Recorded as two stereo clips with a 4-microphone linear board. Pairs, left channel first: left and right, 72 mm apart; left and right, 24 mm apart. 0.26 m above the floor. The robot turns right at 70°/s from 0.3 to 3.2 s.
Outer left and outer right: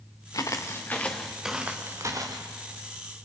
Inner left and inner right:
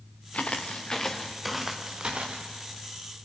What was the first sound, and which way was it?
Footsteps, 55° left (ahead or behind).